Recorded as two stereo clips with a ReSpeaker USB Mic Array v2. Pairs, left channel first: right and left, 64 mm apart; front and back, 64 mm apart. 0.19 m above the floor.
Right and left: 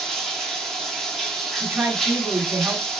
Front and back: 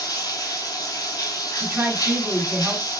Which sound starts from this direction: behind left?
A woman speaking, at 1.6 s.